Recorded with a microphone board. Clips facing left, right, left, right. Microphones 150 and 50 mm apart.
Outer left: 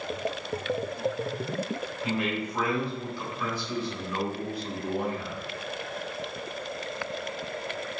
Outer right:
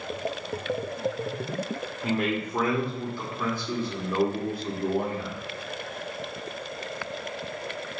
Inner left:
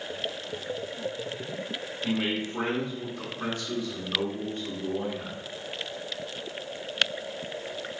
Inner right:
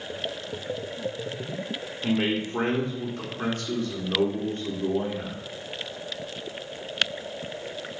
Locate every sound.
2.0 s a man speaking: 50° right (ahead or behind), 1.3 m